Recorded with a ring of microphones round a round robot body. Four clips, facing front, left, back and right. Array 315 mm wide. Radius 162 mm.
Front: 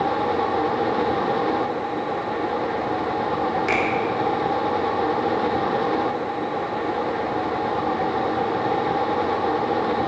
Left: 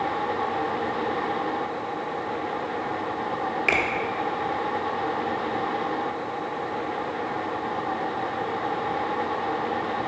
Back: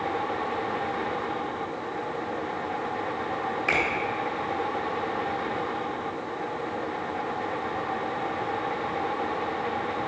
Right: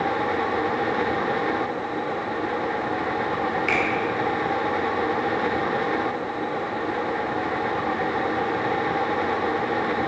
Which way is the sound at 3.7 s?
30° left.